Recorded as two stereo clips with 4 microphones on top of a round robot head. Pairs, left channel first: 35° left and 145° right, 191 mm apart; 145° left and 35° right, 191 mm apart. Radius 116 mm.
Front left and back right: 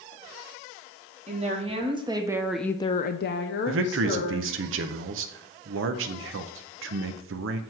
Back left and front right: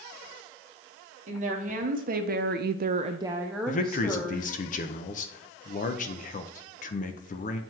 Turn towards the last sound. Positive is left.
turn(degrees=-165)